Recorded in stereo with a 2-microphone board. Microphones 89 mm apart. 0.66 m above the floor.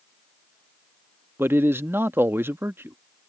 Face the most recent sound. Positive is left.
turn(degrees=-25)  # may be behind; listen again after turning